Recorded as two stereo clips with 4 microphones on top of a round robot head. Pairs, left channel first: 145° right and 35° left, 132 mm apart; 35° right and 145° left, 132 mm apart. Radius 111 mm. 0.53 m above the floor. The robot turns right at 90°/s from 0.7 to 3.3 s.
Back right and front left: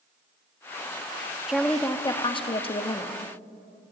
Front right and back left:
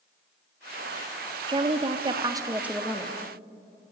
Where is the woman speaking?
115° left, 0.8 m; by 3.1 s 95° right, 0.8 m.